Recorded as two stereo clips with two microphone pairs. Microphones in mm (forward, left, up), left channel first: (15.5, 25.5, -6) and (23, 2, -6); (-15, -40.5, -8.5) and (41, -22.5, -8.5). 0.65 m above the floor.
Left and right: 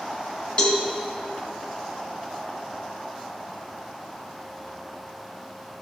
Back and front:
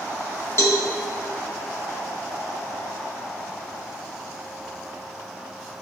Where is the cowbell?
160° left, 1.3 m.